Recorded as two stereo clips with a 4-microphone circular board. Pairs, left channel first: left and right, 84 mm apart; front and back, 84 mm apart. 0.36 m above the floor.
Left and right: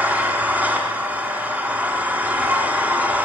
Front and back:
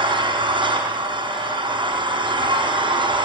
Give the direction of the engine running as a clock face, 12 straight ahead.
5 o'clock.